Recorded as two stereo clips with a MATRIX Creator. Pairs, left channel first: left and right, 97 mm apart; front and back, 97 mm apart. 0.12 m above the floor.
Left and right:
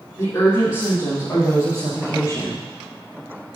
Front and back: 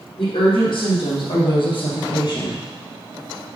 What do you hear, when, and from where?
0.2 s a woman speaking: 35° left, 4 m